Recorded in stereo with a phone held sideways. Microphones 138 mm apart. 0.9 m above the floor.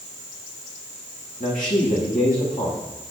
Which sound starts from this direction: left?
A man speaking, at 1.4 s.